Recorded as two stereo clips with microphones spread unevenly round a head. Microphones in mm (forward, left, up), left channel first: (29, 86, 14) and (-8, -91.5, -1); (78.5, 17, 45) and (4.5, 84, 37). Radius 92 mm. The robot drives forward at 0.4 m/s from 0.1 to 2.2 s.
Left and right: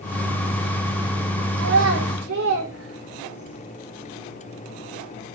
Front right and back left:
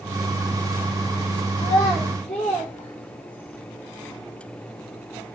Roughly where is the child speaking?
Right.